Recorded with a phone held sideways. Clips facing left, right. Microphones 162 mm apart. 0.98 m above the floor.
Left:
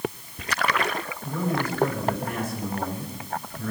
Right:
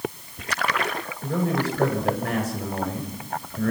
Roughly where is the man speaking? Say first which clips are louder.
Right 3 dB; right.